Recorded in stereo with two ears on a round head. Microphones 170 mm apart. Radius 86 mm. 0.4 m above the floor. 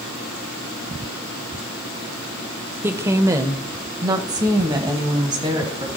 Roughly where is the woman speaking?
Centre.